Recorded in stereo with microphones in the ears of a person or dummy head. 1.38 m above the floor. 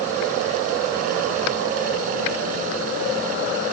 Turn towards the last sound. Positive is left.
No sound to turn to.